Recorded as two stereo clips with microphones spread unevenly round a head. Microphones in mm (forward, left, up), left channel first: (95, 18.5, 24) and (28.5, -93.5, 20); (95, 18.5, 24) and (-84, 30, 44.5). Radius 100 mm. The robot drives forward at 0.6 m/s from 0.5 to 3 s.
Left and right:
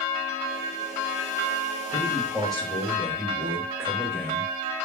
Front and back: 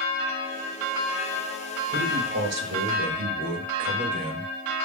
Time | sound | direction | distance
1.9 | a man speaking | 145° left | 3 m